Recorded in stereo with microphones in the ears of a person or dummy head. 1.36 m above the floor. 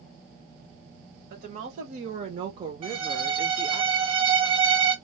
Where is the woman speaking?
60° right (ahead or behind), 1.2 m; by 3.8 s 20° left (ahead or behind), 0.7 m.